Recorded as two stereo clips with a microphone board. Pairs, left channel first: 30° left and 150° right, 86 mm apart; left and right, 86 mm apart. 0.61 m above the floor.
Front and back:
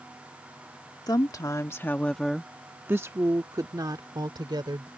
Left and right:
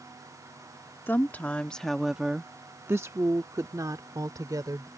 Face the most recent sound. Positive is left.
turn(degrees=-130)